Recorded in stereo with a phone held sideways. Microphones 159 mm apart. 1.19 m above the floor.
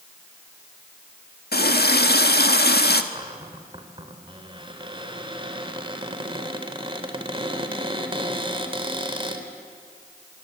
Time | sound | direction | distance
1.5 | a running tap | 80° left | 1.6 m
3.1 | a cupboard door | 30° right (ahead or behind) | 2.5 m